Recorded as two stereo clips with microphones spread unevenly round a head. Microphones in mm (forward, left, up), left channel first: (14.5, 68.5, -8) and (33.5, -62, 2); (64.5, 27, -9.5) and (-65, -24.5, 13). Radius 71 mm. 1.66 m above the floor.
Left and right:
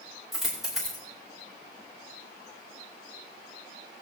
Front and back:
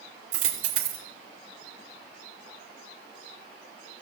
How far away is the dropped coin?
About 2.5 m.